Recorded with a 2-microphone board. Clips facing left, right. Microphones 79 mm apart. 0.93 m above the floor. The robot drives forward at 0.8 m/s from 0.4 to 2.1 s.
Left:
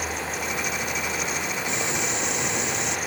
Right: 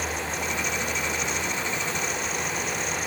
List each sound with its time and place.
1.7 s boiling: 80° left; by 3.0 s 85° left